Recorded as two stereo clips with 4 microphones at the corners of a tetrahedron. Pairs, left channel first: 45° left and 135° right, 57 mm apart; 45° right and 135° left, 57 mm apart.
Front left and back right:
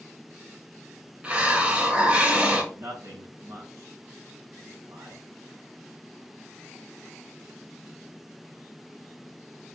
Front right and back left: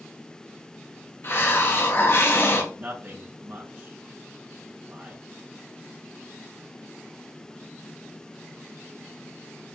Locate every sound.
1.2 s a hiss: 75° right, 2.5 m
2.7 s a man speaking: 175° right, 3 m